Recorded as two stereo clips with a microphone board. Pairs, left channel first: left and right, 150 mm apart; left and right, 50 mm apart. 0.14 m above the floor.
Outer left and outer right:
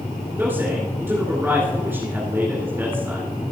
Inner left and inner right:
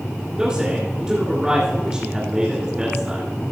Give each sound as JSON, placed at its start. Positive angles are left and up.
{"t": 0.4, "sound": "a man speaking", "side_deg": -15, "distance_m": 2.5}